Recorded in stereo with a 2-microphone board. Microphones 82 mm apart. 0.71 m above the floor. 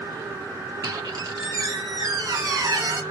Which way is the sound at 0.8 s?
55° right (ahead or behind).